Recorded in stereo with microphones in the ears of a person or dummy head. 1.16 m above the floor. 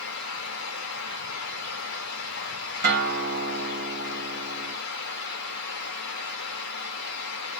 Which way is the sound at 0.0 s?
70° left (ahead or behind).